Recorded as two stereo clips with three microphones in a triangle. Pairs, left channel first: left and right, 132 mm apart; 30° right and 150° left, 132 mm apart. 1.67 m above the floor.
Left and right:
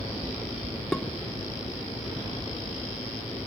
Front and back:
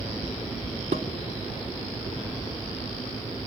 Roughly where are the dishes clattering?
Behind.